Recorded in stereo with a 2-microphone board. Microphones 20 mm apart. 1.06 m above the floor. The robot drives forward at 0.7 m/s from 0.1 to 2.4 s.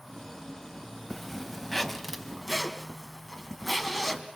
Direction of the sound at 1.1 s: 20° left (ahead or behind).